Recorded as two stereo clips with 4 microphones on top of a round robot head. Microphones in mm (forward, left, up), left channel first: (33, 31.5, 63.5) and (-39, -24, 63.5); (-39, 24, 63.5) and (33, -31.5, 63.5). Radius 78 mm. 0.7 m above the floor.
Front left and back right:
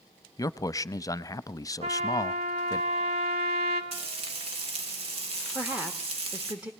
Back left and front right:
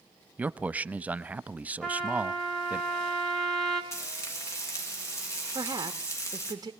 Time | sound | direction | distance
0.4 | a man speaking | 25° left | 0.8 m
1.8 | a trumpet | 130° right | 3 m
3.9 | frying | 160° right | 4 m
5.5 | a woman speaking | 75° right | 1.6 m